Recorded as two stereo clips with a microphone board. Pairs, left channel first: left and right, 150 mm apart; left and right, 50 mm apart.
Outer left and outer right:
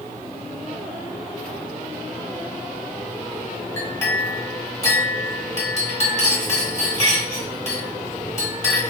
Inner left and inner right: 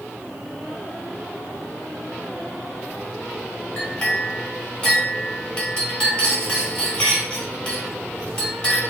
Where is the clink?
20° left (ahead or behind), 1.4 m.